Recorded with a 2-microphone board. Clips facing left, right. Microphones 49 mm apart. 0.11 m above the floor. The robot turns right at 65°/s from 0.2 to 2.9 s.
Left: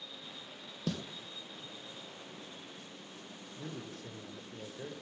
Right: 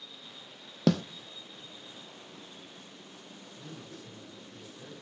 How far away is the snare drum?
About 0.6 m.